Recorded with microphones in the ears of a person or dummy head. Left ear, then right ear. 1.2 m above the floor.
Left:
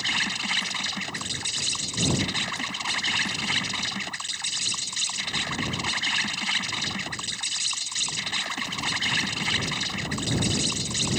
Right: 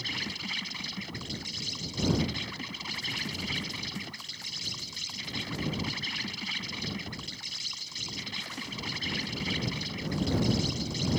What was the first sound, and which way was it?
An insect, 45° left (ahead or behind).